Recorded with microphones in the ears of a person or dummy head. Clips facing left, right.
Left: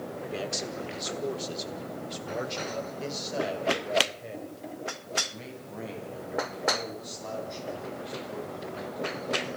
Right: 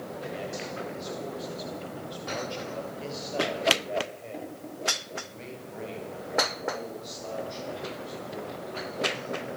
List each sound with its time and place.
0.3 s a man speaking: 65° left (ahead or behind), 3.5 m; by 9.1 s 5° right (ahead or behind), 13.5 m